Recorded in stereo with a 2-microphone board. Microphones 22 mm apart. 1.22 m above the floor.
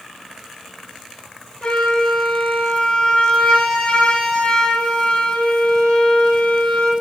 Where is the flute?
45° left (ahead or behind), 3 m.